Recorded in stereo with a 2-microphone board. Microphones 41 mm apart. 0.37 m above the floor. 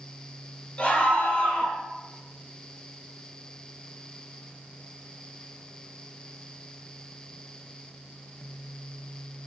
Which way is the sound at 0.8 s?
35° left (ahead or behind).